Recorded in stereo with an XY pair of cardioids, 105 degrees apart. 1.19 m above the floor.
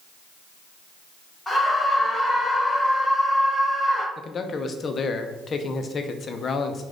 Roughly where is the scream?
Ahead.